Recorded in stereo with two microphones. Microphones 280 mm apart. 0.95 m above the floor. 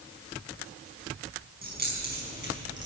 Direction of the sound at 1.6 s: 35° right (ahead or behind).